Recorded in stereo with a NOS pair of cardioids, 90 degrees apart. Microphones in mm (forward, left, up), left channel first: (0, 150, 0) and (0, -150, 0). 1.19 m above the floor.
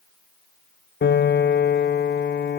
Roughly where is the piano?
Ahead left.